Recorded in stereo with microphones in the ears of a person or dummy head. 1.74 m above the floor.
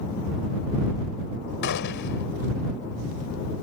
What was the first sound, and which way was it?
A gunshot, 60° left (ahead or behind).